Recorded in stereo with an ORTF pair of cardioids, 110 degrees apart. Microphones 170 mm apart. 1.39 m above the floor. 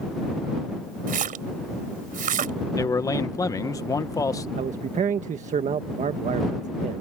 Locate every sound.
1.1 s a splash: 55° right
2.8 s a man speaking: 20° left
4.6 s a man speaking: 45° right